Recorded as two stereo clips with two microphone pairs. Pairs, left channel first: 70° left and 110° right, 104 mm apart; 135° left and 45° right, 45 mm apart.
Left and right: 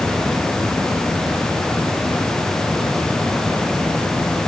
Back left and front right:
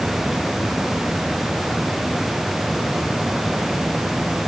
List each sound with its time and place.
Only background noise.